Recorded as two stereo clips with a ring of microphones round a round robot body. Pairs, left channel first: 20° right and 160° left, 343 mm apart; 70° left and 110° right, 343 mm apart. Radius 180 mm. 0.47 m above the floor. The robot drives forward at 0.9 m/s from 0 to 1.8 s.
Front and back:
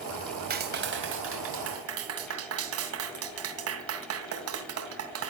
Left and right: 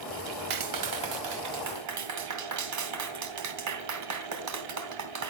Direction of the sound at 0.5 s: 140° right.